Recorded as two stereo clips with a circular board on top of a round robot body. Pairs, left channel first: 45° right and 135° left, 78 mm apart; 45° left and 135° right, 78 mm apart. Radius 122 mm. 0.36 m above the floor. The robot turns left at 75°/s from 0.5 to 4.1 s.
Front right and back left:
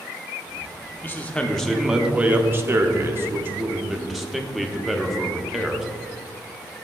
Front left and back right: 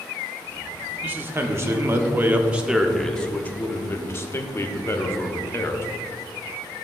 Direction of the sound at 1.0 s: 85° right.